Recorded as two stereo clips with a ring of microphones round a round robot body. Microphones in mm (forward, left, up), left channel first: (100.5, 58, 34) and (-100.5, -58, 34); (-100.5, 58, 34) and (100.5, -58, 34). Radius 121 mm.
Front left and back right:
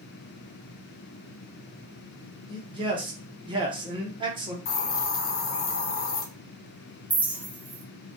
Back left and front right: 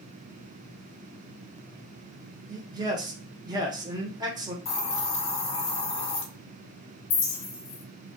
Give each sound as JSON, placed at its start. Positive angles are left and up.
{"t": 2.5, "sound": "a man speaking", "azimuth_deg": -95, "distance_m": 1.0}
{"t": 4.7, "sound": "a hiss", "azimuth_deg": 80, "distance_m": 0.8}
{"t": 7.1, "sound": "a clink", "azimuth_deg": 125, "distance_m": 0.8}